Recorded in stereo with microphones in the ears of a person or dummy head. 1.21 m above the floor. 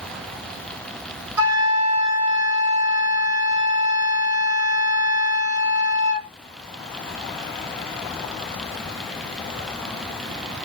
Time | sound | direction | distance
1.4 | a flute | 15° right (ahead or behind) | 2 m